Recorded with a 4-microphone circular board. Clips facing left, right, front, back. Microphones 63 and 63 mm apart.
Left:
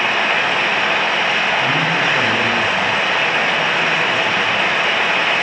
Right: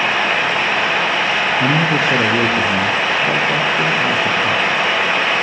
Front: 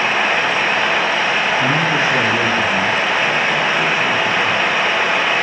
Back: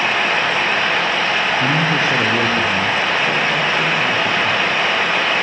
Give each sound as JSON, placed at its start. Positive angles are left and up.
{"t": 1.6, "sound": "a man speaking", "azimuth_deg": -95, "distance_m": 6.0}